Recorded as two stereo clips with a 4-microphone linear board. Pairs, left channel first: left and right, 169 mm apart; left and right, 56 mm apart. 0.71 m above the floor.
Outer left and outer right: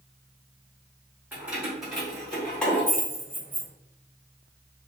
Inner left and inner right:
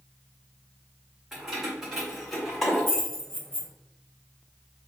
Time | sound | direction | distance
1.3 | keys jangling | 10° right (ahead or behind) | 2.0 m